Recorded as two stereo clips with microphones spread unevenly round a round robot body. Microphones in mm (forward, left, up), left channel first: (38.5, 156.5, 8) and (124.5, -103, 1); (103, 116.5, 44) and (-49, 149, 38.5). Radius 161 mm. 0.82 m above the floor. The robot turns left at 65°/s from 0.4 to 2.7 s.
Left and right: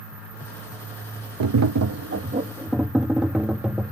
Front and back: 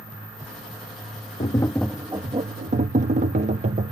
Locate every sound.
1.4 s tapping: 75° right; by 3.9 s 155° right